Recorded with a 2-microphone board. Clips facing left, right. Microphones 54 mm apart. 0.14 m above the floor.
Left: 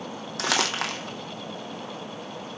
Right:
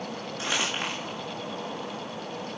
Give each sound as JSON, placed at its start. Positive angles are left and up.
{"t": 0.4, "sound": "crumpling", "side_deg": 80, "distance_m": 1.3}